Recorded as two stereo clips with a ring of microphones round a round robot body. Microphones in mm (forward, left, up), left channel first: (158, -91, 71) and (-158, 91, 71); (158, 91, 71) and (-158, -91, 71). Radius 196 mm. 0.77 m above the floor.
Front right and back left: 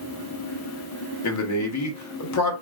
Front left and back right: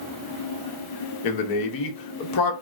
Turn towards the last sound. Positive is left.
turn(degrees=10)